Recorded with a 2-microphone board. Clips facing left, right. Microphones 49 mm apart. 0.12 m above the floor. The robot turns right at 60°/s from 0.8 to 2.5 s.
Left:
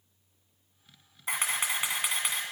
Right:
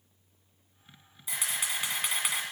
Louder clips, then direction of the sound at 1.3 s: Left 4 dB; 125° left.